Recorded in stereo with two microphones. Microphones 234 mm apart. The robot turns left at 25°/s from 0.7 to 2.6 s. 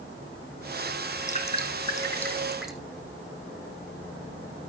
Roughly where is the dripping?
Left.